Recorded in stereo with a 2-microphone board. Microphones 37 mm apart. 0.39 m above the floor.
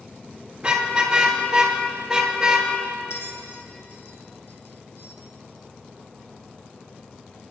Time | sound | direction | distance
0.6 | a car horn | 25° right (ahead or behind) | 3.5 m
3.1 | a bell | 85° left | 2 m